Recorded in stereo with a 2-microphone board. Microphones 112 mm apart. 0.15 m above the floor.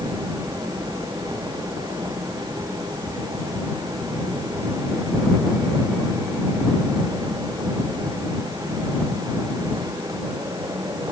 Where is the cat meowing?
I don't hear a cat meowing.